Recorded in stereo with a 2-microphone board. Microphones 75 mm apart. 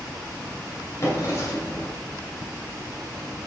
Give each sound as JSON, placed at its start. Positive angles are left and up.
{"t": 1.0, "sound": "a drawer", "side_deg": 40, "distance_m": 2.0}